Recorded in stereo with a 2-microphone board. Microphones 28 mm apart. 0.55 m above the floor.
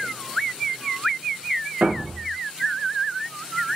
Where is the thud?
80° right, 1.9 m.